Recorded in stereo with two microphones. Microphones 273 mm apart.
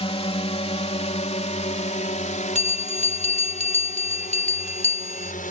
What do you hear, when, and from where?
0.0 s a drone: 20° left (ahead or behind); by 5.5 s 30° left (ahead or behind)
2.5 s a bell: 25° right (ahead or behind)